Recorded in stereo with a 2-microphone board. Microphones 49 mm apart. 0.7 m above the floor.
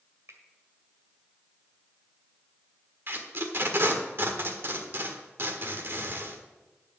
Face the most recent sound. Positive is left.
turn(degrees=-50)  # may be behind; listen again after turning